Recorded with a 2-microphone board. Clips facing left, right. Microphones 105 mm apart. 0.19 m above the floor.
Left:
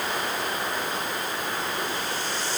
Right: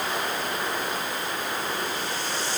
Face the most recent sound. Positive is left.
No sound to turn to.